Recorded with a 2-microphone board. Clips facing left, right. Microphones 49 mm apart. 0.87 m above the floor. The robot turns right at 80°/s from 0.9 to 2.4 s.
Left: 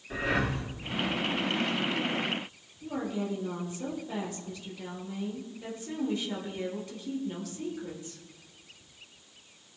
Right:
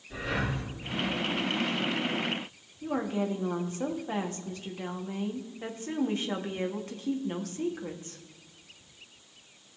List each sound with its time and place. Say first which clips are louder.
0.1 s breathing: left 3 dB; 65° left (ahead or behind), 2.0 m
2.8 s a woman speaking: right 3 dB; 45° right (ahead or behind), 1.6 m